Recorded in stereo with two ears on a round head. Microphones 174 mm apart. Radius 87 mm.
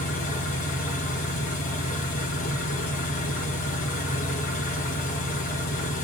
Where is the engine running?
45° left (ahead or behind), 1.6 m.